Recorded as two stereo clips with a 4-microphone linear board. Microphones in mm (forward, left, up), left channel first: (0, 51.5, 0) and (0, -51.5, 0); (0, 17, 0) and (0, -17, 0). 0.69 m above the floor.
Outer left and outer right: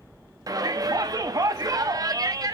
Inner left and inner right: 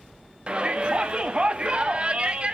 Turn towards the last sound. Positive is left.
turn(degrees=-35)  # may be behind; listen again after turning